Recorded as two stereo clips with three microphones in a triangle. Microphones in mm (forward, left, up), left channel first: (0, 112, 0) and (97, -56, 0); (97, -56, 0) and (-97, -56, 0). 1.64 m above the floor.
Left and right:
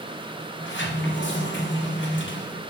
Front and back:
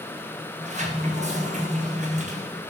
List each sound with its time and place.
0.6 s a sliding door: 130° left, 1.2 m